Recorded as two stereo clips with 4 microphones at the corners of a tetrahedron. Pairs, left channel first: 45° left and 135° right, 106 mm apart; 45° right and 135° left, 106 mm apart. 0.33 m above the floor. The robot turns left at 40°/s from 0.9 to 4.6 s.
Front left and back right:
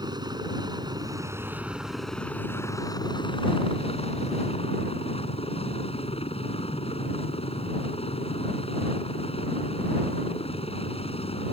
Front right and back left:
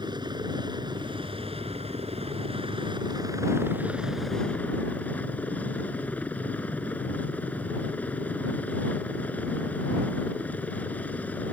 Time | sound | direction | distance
0.0 | a helicopter | straight behind | ?